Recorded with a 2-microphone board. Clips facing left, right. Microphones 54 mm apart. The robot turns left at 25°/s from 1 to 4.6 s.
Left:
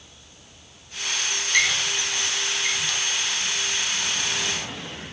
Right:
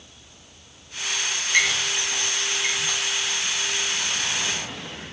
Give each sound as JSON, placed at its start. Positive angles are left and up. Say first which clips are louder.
{"t": 1.5, "sound": "a squeak", "louder": "right 1 dB", "side_deg": -20, "distance_m": 1.1}